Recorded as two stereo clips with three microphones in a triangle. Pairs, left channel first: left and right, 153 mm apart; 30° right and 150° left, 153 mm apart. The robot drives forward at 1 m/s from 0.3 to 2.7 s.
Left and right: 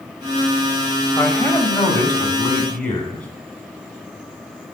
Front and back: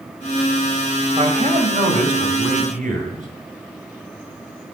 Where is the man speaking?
145° left, 1.2 m; by 3.3 s 170° left, 2.5 m.